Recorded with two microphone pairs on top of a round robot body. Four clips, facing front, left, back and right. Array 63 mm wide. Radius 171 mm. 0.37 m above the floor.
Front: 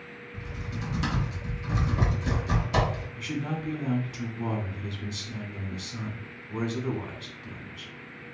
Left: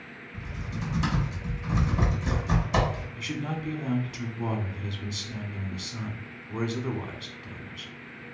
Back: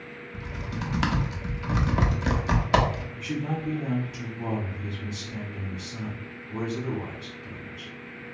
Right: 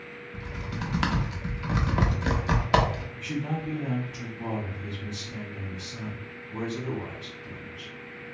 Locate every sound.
0.3 s typing on a keyboard: 135° right, 0.7 m
3.2 s a man speaking: 65° left, 1.1 m